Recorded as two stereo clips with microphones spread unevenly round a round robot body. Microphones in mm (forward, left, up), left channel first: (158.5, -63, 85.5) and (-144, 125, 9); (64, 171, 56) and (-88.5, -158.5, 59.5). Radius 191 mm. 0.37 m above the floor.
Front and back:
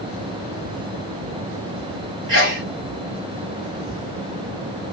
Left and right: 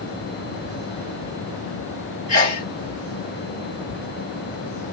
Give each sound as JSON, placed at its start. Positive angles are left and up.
{"t": 2.3, "sound": "a sneeze", "azimuth_deg": 130, "distance_m": 1.5}